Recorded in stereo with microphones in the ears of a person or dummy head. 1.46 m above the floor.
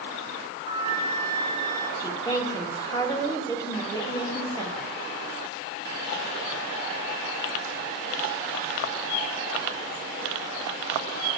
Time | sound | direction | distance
0.7 | a flute | 15° right (ahead or behind) | 1.8 m
2.0 | a woman speaking | 15° left (ahead or behind) | 2 m